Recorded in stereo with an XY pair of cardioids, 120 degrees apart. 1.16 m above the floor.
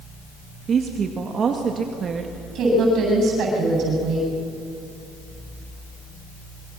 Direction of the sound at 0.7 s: 45° right.